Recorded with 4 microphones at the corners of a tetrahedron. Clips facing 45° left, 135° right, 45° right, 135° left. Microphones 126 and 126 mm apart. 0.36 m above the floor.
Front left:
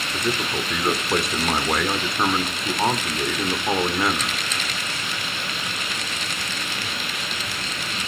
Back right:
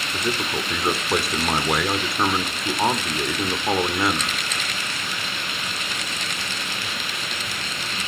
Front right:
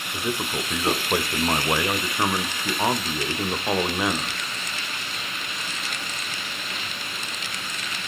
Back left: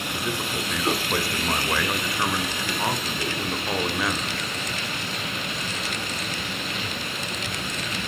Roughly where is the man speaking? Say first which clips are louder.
Front left 1 dB, front right 3 dB; ahead right.